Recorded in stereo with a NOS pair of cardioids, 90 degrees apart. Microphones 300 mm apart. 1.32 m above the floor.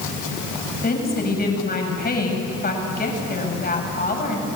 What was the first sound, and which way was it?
A woman speaking, 30° left.